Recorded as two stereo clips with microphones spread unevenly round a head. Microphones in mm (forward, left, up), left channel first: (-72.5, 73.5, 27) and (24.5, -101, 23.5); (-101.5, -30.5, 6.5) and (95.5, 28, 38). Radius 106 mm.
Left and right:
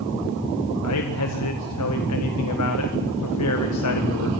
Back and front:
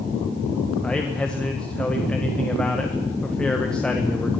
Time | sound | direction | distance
0.8 | a man speaking | 110° left | 1.6 m